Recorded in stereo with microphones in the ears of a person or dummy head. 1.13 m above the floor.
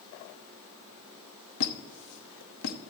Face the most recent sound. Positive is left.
turn(degrees=75)  # may be behind; listen again after turning